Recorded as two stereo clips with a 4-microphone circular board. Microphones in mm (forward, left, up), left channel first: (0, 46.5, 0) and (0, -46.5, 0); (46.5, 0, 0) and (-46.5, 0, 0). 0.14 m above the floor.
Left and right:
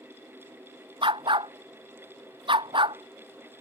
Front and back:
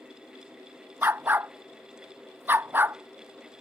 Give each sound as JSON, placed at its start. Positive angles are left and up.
{"t": 1.0, "sound": "a dog barking", "azimuth_deg": -110}